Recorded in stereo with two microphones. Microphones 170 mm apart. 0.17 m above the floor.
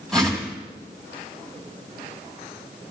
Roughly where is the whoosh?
Centre.